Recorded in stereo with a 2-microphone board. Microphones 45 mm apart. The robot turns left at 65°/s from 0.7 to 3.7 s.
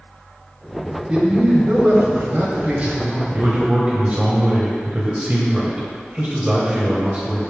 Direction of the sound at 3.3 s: 55° right (ahead or behind).